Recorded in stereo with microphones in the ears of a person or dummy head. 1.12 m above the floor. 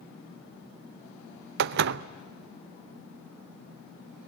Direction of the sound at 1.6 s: 65° right (ahead or behind).